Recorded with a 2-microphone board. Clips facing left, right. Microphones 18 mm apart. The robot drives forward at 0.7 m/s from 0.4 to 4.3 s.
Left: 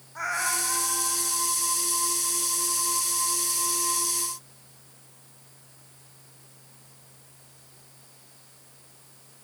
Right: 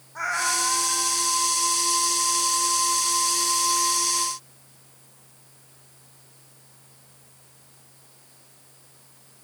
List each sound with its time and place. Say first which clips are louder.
0.1 s a cat meowing: right 3 dB; 5° right (ahead or behind), 0.6 m